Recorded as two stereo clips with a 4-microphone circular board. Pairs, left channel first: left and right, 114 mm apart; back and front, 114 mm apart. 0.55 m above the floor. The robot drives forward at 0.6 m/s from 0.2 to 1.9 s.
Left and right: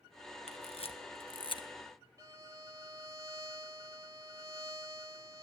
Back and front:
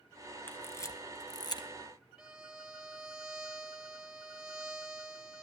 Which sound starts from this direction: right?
A violin, at 2.2 s.